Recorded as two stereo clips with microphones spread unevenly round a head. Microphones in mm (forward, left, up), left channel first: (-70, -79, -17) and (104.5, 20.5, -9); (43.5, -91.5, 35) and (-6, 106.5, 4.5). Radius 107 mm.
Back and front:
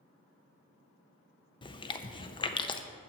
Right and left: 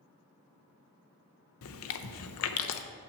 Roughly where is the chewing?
Right.